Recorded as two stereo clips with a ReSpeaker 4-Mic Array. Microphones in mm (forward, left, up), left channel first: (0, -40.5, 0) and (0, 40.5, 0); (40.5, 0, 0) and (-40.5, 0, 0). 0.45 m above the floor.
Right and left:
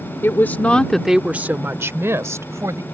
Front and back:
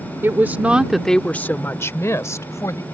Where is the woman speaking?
135° right; by 2.9 s 45° left.